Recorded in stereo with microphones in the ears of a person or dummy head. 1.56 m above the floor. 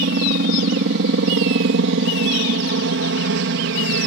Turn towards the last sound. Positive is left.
turn(degrees=-60)  # may be behind; listen again after turning